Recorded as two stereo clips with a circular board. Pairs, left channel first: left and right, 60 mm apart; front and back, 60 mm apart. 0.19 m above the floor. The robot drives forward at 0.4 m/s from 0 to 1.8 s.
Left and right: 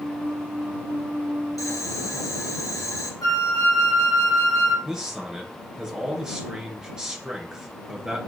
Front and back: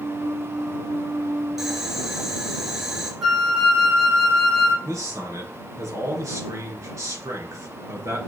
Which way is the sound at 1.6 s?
95° left.